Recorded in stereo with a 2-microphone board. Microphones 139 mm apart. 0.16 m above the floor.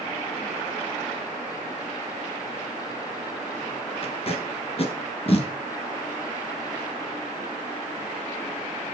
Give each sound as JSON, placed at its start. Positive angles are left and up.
{"t": 4.0, "sound": "tape being pulled", "side_deg": 45, "distance_m": 1.4}